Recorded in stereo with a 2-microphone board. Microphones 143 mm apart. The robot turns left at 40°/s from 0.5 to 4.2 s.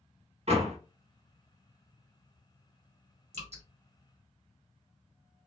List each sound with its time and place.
0.5 s a door slam: 50° right (ahead or behind), 0.9 m; by 0.8 s 60° right (ahead or behind), 0.9 m
3.3 s dripping: 60° right (ahead or behind), 1.2 m; by 3.6 s 50° right (ahead or behind), 1.2 m